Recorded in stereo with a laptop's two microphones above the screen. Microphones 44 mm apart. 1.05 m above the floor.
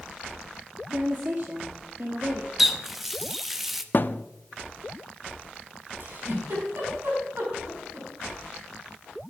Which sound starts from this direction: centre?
A running tap, at 2.6 s.